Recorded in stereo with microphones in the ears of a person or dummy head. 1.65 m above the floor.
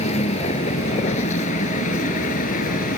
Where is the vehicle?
35° left (ahead or behind); by 3.0 s 45° left (ahead or behind).